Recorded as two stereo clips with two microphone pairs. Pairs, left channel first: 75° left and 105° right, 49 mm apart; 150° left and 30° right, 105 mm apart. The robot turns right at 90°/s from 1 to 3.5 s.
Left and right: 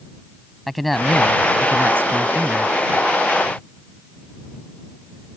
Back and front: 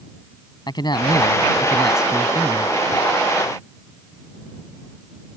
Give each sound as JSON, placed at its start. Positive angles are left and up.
{"t": 0.7, "sound": "a man speaking", "azimuth_deg": 160}